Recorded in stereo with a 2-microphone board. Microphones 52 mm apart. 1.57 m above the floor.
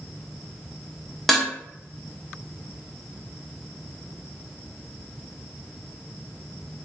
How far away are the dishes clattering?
About 0.6 m.